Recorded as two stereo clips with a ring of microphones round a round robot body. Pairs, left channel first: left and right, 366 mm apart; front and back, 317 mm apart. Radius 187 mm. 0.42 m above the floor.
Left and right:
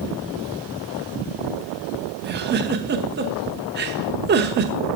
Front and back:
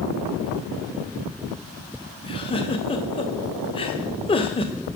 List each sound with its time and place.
2.2 s a giggle: 60° right, 1.0 m